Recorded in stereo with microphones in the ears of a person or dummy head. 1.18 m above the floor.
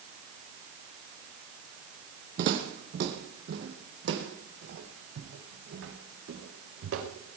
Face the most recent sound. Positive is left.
turn(degrees=-75)  # may be behind; listen again after turning